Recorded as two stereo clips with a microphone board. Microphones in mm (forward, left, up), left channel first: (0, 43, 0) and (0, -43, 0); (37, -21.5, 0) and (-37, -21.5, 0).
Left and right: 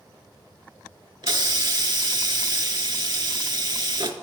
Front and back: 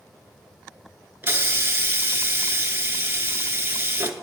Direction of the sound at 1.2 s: 120° right.